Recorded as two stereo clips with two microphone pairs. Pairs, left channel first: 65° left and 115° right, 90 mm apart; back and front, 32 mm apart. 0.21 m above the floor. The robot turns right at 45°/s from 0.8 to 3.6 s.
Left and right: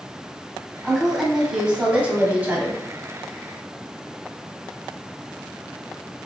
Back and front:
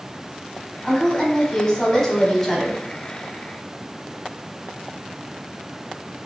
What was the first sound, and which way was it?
A woman speaking, 150° left.